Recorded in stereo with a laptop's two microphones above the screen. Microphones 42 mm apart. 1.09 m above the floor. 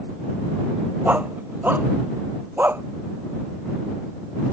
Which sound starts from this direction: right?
A dog barking, at 1.1 s.